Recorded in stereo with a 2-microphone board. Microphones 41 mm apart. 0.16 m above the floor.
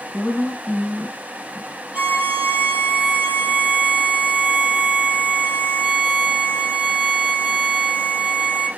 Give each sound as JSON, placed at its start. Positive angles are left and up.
{"t": 0.1, "sound": "a woman speaking", "side_deg": 35, "distance_m": 1.4}
{"t": 1.9, "sound": "a violin", "side_deg": -45, "distance_m": 0.9}